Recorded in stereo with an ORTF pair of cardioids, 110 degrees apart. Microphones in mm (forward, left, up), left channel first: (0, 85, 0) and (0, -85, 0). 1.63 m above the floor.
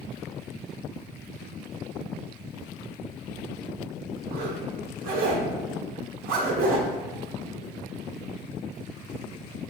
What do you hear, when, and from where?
4.3 s a zipper: 60° right, 0.9 m